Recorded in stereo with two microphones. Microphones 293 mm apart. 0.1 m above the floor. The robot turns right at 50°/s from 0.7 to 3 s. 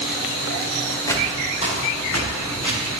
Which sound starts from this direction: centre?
Footsteps, at 1.1 s.